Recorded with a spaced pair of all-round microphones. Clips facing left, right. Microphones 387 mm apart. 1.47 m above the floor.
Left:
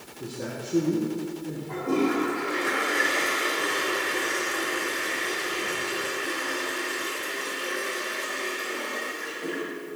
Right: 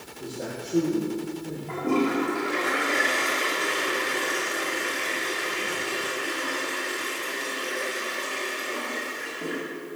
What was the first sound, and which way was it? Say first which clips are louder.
A man speaking: even; 15° left (ahead or behind).